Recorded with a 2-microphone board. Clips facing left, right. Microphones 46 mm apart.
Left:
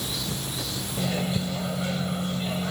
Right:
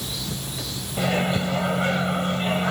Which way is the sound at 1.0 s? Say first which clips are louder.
Right 6 dB; 50° right (ahead or behind).